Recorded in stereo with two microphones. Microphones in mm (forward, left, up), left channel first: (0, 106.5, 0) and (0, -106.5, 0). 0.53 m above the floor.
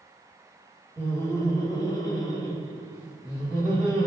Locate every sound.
1.0 s laughter: 10° left (ahead or behind), 0.8 m; by 4.1 s 15° left (ahead or behind), 1.5 m